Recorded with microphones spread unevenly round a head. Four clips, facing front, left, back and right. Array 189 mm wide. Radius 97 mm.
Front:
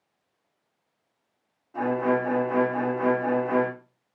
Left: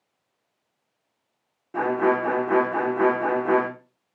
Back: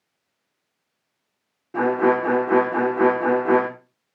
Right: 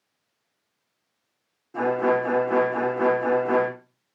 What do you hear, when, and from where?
1.7 s a violin: 160° left, 2.5 m